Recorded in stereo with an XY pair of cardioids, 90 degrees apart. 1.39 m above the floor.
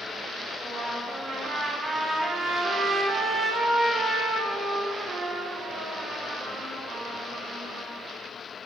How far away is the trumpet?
About 3.5 m.